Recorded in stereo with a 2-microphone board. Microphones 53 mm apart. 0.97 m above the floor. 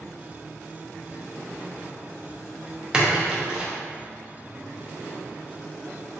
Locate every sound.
2.9 s a splash: 15° right (ahead or behind), 0.7 m